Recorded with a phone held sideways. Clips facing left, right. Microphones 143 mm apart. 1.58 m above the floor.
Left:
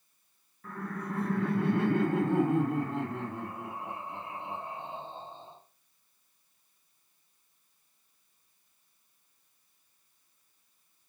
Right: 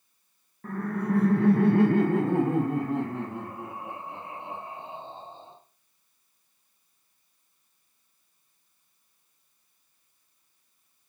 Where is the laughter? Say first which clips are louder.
Right 8 dB; 50° right (ahead or behind), 0.5 m; by 5.5 s 20° right (ahead or behind), 2.5 m.